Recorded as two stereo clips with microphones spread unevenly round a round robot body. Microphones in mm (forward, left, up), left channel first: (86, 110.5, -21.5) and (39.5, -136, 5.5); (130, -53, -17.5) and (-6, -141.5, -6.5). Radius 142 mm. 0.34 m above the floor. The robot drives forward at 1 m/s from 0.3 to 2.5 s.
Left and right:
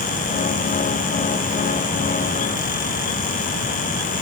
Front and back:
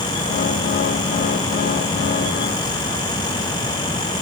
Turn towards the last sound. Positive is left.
No sound to turn to.